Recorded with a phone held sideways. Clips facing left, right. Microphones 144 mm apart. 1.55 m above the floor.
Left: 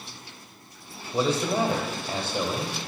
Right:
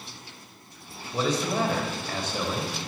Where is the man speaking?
10° left (ahead or behind), 1.0 m.